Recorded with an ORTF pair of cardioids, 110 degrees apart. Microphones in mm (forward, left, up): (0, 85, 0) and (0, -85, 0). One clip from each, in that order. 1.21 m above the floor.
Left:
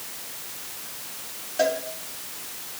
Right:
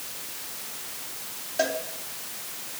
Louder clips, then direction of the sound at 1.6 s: Left 3 dB; straight ahead.